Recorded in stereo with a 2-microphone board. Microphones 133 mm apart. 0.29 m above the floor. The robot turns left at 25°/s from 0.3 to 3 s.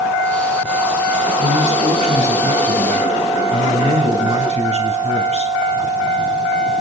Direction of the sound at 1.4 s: 75° right.